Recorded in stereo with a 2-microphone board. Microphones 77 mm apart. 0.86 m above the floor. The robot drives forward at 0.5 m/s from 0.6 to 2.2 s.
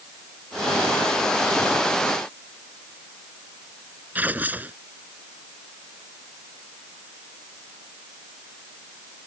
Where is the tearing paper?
20° right (ahead or behind).